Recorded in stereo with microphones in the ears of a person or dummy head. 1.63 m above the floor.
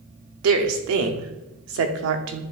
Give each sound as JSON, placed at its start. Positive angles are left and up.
{"t": 0.4, "sound": "a woman speaking", "side_deg": -70, "distance_m": 0.8}